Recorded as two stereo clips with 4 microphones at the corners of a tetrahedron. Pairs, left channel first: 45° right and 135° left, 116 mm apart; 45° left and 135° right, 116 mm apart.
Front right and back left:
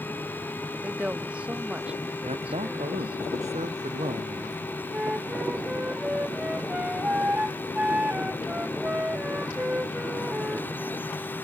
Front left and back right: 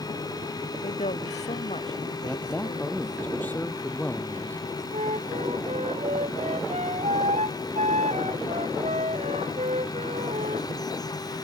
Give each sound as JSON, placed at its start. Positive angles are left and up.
{"t": 0.8, "sound": "a woman speaking", "azimuth_deg": 55}
{"t": 2.2, "sound": "a man speaking", "azimuth_deg": 120}
{"t": 4.9, "sound": "a flute", "azimuth_deg": -145}